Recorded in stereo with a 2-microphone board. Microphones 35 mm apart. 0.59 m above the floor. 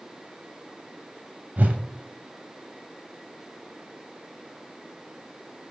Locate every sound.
1.6 s a whoosh: 55° right (ahead or behind), 0.6 m